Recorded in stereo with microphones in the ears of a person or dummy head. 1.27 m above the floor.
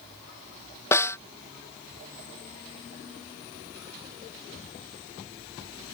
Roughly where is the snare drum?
Centre.